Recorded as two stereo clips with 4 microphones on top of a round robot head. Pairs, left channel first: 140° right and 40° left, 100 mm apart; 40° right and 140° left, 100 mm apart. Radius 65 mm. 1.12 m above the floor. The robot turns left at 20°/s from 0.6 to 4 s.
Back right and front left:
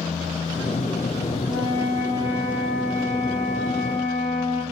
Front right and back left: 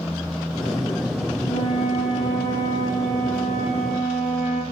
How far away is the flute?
About 1.4 m.